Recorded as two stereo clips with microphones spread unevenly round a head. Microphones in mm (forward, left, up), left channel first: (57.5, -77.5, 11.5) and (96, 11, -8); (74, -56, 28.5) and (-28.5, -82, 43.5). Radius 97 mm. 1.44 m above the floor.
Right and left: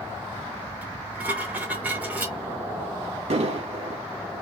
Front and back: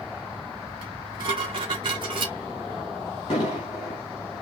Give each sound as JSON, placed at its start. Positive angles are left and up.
{"t": 0.8, "sound": "dishes clattering", "azimuth_deg": 155, "distance_m": 0.7}
{"t": 3.3, "sound": "an explosion", "azimuth_deg": 70, "distance_m": 2.5}